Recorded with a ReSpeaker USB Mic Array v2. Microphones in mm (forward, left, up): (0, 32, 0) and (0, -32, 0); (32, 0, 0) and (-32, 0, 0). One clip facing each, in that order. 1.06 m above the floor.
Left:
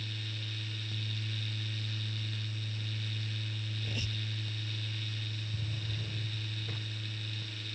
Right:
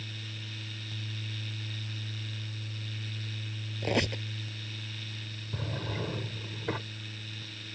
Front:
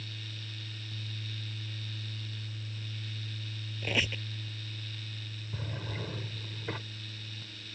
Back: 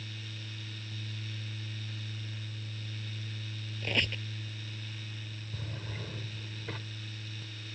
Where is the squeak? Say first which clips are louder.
Right 14 dB, front 1 dB; 85° right.